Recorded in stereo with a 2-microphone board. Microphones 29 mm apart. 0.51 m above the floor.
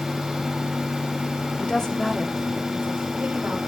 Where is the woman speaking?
30° left (ahead or behind), 1.5 m; by 3.6 s 55° right (ahead or behind), 2 m.